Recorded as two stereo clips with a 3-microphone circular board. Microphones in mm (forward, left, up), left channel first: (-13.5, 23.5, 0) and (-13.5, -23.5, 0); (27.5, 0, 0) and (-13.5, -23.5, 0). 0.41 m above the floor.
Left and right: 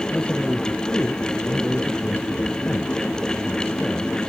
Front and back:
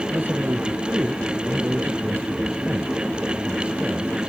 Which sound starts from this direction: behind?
A man speaking, at 0.1 s.